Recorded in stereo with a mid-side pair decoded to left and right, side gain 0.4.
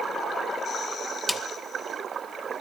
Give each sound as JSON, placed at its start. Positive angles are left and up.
{"t": 1.3, "sound": "a snare drum", "azimuth_deg": 15, "distance_m": 1.9}